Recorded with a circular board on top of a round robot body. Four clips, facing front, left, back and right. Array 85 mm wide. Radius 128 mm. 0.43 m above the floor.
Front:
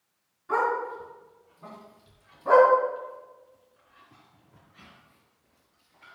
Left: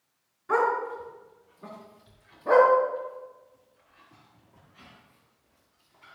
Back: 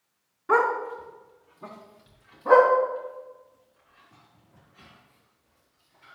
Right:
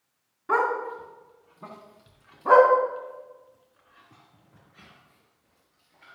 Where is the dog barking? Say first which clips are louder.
Even, back 3 dB; 145° right, 2.5 m; by 6.2 s 60° right, 5 m.